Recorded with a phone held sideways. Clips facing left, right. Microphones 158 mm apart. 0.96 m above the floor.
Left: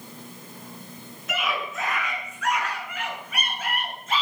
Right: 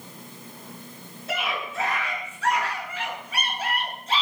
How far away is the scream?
About 8.5 m.